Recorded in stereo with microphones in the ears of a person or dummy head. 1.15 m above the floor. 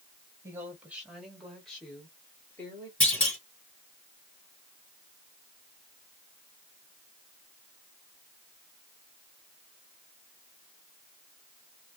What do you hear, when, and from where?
0.4 s a woman speaking: 15° right (ahead or behind), 1.6 m; by 2.9 s 10° left (ahead or behind), 2.5 m
3.0 s a clunk: 5° left (ahead or behind), 4 m